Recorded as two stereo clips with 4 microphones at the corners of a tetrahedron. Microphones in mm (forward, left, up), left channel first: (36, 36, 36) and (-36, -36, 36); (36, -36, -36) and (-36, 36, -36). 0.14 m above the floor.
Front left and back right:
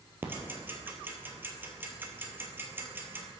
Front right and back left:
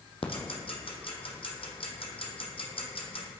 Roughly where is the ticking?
Ahead right.